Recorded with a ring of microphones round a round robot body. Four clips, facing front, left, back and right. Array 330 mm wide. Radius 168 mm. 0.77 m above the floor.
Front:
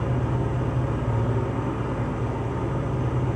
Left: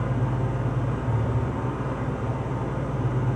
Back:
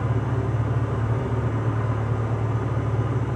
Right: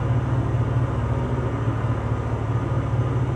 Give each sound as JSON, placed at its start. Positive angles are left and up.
{"t": 0.0, "sound": "an engine running", "azimuth_deg": -35, "distance_m": 4.5}